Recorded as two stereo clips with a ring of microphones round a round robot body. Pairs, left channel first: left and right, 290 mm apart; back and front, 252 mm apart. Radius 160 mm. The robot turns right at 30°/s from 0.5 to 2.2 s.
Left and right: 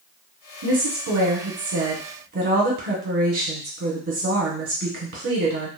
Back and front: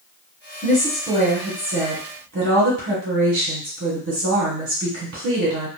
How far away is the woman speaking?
About 1.3 m.